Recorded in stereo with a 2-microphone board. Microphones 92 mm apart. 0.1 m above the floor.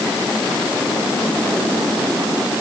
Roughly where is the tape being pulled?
I don't hear tape being pulled.